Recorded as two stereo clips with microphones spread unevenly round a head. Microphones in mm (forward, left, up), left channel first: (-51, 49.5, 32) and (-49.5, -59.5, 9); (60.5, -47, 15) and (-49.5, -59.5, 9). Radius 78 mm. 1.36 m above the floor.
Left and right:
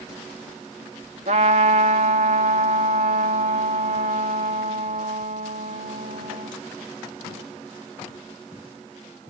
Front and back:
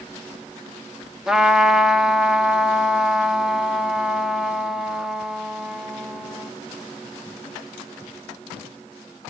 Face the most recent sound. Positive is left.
turn(degrees=-85)